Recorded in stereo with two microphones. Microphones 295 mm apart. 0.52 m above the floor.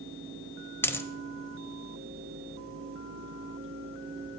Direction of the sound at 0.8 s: 10° left (ahead or behind).